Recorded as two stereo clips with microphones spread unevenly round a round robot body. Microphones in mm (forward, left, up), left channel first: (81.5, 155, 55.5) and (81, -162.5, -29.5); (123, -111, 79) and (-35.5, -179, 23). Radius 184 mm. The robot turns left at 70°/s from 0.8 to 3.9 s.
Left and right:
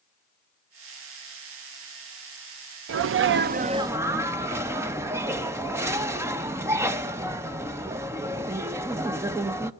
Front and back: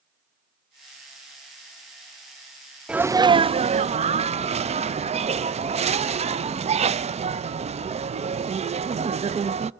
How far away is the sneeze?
About 0.5 m.